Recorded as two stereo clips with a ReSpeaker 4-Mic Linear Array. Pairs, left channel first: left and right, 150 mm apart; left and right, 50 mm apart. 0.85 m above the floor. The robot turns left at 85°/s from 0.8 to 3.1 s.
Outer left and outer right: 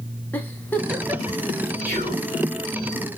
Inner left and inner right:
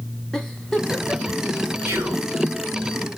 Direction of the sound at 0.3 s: 10° left (ahead or behind).